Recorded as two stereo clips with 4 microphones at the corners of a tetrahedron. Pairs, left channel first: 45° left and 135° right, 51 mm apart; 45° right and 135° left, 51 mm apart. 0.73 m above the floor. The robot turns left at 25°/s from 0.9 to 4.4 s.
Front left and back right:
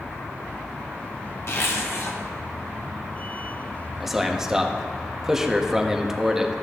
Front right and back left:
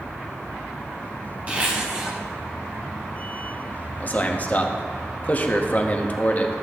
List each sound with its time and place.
1.5 s a zipper: 75° left, 1.8 m; by 2.2 s 60° left, 1.8 m
4.0 s a man speaking: 50° right, 0.8 m; by 6.5 s 60° right, 0.8 m